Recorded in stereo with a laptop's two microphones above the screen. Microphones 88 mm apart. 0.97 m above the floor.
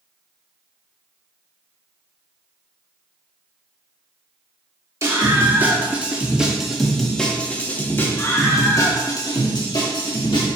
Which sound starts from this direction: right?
A scream, at 5.0 s.